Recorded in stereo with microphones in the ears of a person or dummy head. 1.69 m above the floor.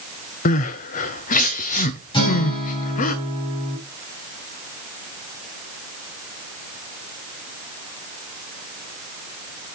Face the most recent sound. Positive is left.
turn(degrees=30)  # may be behind; listen again after turning